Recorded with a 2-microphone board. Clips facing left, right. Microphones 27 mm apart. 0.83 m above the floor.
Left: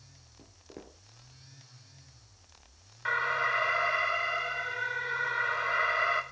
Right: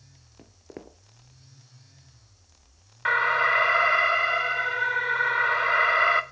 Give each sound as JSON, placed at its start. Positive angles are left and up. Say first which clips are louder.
{"t": 0.4, "sound": "footsteps", "louder": "right 5 dB", "side_deg": -35, "distance_m": 0.9}
{"t": 3.0, "sound": "an alarm", "louder": "right 7 dB", "side_deg": -30, "distance_m": 0.8}